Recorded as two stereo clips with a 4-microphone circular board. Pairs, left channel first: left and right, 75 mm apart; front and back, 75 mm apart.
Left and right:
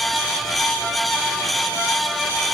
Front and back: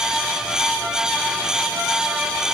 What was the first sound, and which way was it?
Only background noise.